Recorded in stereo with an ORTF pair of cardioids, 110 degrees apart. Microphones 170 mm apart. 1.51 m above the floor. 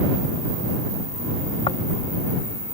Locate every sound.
1.7 s snoring: 30° left